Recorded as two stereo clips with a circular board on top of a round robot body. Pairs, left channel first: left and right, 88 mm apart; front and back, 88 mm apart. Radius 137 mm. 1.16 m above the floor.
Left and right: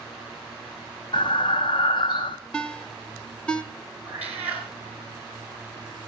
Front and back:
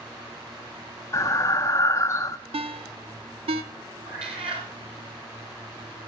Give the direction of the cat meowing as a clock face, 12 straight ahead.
5 o'clock.